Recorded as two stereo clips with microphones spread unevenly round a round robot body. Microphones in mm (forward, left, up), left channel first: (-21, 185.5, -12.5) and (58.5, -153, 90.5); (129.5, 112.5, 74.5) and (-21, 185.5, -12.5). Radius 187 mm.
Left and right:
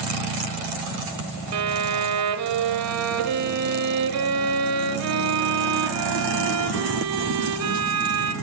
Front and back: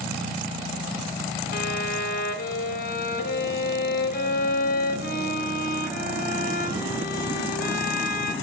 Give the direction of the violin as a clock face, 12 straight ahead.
2 o'clock.